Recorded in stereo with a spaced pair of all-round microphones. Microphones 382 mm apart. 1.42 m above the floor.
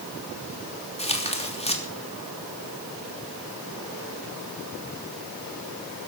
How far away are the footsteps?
No footsteps in this recording.